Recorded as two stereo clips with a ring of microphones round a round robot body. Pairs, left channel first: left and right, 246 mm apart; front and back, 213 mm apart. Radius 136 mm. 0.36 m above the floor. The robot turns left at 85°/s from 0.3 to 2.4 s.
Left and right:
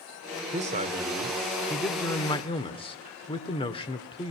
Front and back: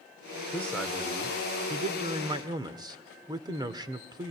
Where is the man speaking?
70° right, 1.5 m; by 4.3 s 130° left, 1.5 m.